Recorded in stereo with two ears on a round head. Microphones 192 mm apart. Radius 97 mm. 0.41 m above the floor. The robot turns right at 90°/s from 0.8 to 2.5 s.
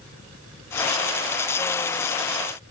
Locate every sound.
Only background noise.